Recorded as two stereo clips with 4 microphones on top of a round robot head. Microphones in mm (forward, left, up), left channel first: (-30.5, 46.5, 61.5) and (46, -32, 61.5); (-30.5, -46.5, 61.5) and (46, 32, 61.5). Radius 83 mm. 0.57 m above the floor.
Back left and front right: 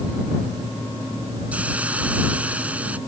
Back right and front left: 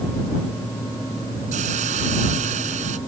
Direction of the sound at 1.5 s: 30° left.